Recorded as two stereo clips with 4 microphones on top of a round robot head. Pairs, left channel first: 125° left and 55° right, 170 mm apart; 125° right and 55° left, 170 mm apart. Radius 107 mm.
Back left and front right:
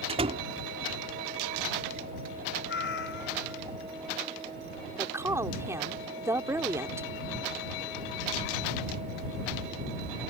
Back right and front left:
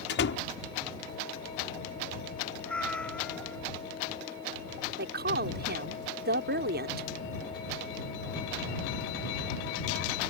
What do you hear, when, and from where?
0.1 s a door slam: 110° right
2.7 s a cat meowing: 150° left
5.0 s a woman speaking: 25° left